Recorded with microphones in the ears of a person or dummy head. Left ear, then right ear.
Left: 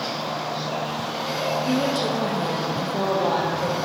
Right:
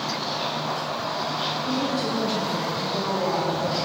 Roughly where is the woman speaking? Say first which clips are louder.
Left 3 dB; left.